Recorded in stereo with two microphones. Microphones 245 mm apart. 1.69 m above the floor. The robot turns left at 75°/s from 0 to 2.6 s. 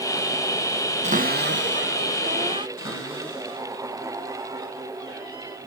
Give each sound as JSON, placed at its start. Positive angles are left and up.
{"t": 1.0, "sound": "a cupboard door", "azimuth_deg": -40, "distance_m": 1.0}
{"t": 2.8, "sound": "a cupboard door", "side_deg": 50, "distance_m": 8.0}